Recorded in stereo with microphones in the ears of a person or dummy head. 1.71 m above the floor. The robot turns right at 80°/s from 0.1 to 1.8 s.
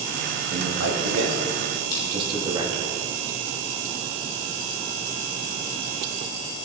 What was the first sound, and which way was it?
A man speaking, 45° right (ahead or behind).